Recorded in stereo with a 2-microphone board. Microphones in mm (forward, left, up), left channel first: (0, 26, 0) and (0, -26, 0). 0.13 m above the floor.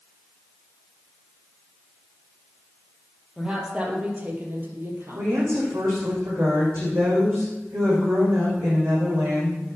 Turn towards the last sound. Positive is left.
turn(degrees=-65)  # may be behind; listen again after turning